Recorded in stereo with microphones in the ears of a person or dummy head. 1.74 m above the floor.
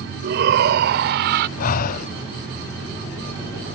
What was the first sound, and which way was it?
A shout, 65° right (ahead or behind).